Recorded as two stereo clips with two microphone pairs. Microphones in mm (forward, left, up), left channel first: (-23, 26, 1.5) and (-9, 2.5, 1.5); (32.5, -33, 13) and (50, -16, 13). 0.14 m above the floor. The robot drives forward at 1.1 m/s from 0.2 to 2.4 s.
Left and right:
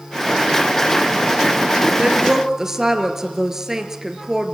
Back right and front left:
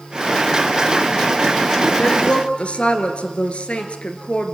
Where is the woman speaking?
115° right, 1.9 m; by 4.5 s 130° right, 2 m.